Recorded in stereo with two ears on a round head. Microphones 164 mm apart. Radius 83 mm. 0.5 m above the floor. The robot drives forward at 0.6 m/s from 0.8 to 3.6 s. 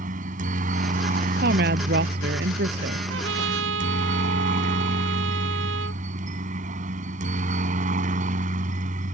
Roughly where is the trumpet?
Right.